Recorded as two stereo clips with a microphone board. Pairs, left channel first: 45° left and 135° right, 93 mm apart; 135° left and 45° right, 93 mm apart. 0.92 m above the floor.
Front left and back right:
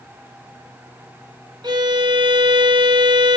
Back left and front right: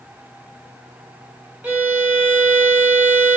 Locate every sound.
1.6 s a violin: 115° right, 0.9 m